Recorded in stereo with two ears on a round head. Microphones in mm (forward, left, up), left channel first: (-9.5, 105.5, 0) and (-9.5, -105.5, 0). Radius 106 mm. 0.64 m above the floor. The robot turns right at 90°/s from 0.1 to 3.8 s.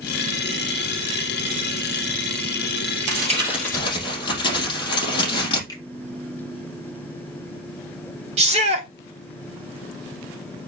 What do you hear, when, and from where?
3.1 s crumpling: 45° right, 5 m; by 5.6 s 20° left, 5 m
5.7 s a finger snap: 15° left (ahead or behind), 2.5 m
8.4 s a shout: 25° right (ahead or behind), 1.9 m